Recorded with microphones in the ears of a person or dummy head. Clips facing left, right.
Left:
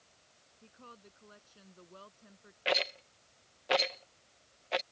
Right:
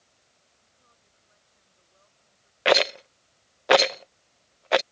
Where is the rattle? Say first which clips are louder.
Right 13 dB; 70° right (ahead or behind).